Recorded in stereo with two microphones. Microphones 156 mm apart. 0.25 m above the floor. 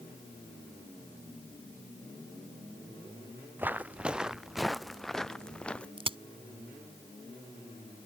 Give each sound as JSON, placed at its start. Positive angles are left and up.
{"t": 3.6, "sound": "footsteps", "side_deg": -15}
{"t": 6.0, "sound": "a crack", "side_deg": -35}